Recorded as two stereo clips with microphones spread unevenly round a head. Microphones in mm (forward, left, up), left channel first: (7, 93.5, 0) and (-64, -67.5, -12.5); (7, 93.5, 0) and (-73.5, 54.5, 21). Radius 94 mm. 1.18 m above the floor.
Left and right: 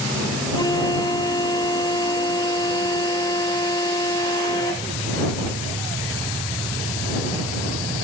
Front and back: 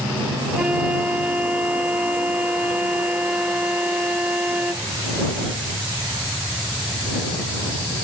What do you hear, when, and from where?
0.5 s a flute: 135° left